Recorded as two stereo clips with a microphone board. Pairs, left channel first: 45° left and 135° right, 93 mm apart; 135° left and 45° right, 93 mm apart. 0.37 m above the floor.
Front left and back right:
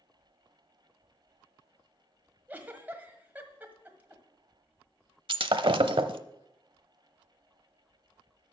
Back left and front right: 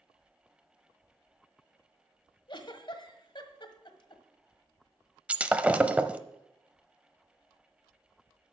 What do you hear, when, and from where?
2.5 s a giggle: 155° left, 1.4 m
5.3 s breaking glass: 120° right, 0.7 m